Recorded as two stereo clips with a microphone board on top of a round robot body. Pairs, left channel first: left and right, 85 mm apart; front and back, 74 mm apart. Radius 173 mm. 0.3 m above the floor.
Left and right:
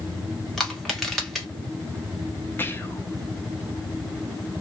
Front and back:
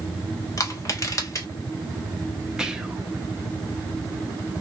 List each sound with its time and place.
0.6 s crushing: straight ahead, 1.8 m
2.6 s whispering: 110° left, 1.0 m